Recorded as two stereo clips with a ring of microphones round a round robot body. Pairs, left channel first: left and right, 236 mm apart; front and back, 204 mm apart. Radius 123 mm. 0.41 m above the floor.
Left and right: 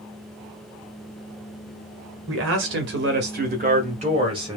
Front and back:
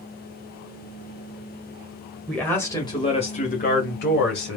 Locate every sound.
2.3 s a man speaking: 85° right, 1.8 m; by 4.6 s 20° right, 2 m